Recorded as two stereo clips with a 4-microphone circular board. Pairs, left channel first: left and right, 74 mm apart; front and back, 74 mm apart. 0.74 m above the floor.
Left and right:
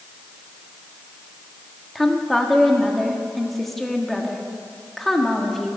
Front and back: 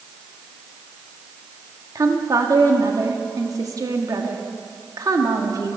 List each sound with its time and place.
1.9 s a woman speaking: 175° left, 1.6 m